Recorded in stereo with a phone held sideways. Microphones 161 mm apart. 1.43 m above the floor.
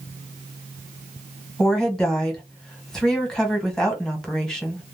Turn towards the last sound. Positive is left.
turn(degrees=5)  # may be behind; listen again after turning